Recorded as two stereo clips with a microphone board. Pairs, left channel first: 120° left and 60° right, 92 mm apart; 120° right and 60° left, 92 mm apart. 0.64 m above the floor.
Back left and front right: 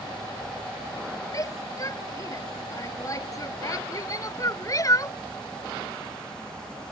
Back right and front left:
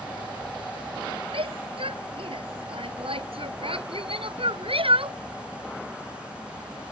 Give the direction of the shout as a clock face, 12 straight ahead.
10 o'clock.